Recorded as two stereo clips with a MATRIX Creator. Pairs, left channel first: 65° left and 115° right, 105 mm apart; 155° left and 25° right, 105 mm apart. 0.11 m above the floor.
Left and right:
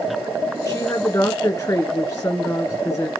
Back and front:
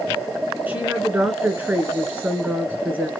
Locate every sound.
0.7 s a woman speaking: 35° left, 1.9 m